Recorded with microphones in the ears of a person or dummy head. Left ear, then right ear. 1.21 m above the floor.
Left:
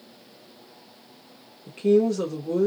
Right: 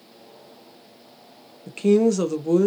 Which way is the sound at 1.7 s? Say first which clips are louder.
Right 2 dB; 45° right (ahead or behind).